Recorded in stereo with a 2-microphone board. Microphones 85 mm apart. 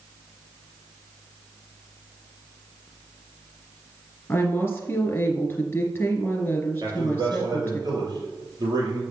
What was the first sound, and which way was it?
A woman speaking, 25° left (ahead or behind).